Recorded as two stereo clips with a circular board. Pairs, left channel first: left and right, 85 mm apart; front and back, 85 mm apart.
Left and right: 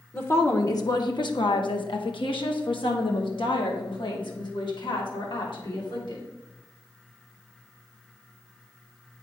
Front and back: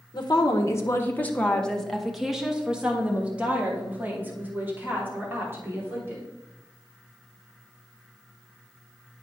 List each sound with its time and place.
0.1 s a woman speaking: 30° left, 1.0 m; by 6.2 s 115° left, 3.5 m